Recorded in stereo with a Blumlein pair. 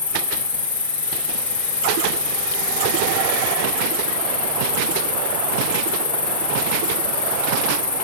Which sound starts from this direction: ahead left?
An insect, at 0.0 s.